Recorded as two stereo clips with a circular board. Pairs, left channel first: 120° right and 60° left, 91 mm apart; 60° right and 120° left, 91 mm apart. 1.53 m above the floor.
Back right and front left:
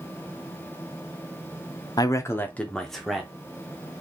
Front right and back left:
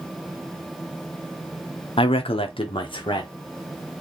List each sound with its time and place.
2.0 s a man speaking: 75° right, 0.6 m; by 4.0 s 15° right, 1.5 m